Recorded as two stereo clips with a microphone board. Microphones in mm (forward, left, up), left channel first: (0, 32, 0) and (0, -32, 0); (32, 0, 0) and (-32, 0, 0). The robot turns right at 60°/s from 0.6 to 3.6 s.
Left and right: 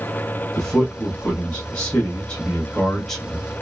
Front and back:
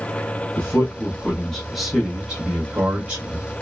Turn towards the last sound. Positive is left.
turn(degrees=-165)